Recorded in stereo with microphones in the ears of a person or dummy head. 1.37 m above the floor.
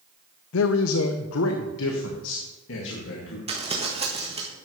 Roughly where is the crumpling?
Right.